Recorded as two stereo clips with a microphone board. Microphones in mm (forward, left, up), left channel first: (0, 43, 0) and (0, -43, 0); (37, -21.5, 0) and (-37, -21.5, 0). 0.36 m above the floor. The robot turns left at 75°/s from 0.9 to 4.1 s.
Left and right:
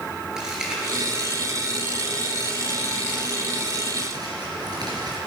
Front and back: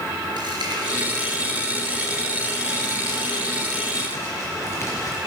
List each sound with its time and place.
0.4 s crumpling: 170° right, 4.5 m; by 5.2 s 50° right, 4.5 m